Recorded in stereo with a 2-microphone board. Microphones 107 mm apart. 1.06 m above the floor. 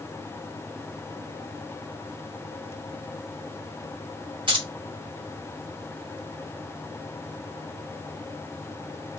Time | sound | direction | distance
4.5 | keys jangling | 50° right (ahead or behind) | 1.1 m